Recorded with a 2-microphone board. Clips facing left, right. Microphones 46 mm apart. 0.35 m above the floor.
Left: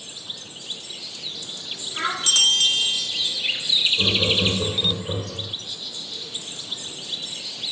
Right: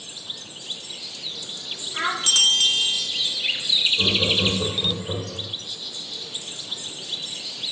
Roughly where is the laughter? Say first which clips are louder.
Left 1 dB; centre.